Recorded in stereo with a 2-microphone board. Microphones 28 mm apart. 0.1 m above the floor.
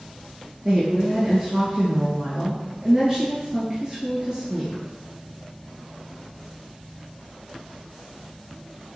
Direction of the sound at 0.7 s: 25° right (ahead or behind).